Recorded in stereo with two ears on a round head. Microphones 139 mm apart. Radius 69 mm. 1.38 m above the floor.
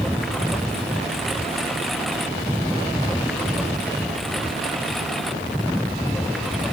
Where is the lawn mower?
Centre (ahead or behind).